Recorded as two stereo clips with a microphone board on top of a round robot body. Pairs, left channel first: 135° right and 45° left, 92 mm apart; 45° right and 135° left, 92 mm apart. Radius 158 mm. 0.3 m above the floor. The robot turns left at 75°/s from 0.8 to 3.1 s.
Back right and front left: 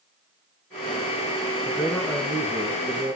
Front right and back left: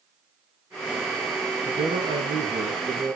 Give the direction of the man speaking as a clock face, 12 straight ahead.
7 o'clock.